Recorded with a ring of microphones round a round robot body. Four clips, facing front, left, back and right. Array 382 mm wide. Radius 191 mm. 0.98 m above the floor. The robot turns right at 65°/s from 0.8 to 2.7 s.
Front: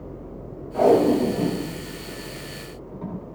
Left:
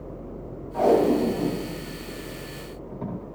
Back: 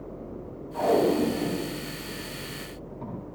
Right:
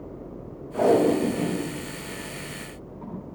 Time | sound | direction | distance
0.7 | tape being pulled | 40° right | 5 m